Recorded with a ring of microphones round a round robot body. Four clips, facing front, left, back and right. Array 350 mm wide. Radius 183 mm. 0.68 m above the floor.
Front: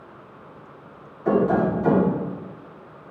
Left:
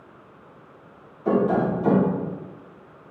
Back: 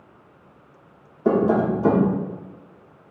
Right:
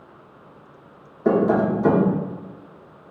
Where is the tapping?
140° right, 1.6 m.